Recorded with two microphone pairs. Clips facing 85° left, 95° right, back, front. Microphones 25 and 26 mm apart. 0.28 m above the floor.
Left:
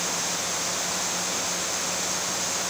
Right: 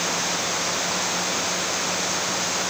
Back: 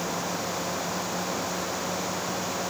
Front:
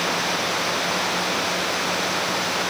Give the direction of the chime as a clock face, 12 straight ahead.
No chime in this recording.